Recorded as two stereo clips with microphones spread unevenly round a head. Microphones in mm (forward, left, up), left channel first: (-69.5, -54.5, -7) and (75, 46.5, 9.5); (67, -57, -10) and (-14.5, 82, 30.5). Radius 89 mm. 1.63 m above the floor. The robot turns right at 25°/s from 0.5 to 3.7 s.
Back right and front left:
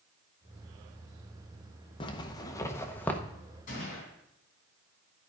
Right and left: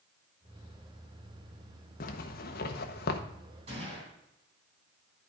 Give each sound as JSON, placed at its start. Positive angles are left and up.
{"t": 2.0, "sound": "a zipper", "azimuth_deg": -90, "distance_m": 0.8}
{"t": 3.7, "sound": "a gunshot", "azimuth_deg": 165, "distance_m": 3.5}